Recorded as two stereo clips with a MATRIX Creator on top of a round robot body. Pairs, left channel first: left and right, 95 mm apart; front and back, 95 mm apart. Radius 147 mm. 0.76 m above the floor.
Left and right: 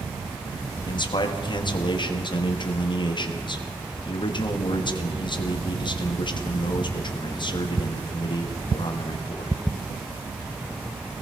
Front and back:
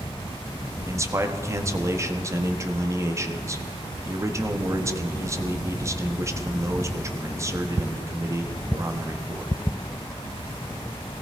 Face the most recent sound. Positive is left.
turn(degrees=125)